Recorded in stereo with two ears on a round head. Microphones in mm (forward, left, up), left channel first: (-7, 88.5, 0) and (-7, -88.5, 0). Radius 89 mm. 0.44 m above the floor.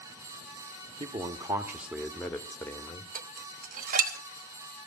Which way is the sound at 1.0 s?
25° right (ahead or behind).